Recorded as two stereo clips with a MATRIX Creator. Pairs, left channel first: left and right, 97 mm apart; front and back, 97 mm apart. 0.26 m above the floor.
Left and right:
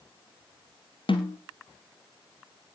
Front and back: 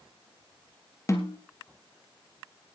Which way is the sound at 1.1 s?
60° left.